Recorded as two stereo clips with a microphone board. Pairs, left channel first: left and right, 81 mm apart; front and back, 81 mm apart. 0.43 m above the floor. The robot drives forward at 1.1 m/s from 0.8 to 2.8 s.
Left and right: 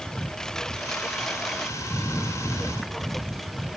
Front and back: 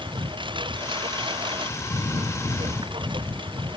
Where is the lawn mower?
170° left; by 3.8 s 175° left.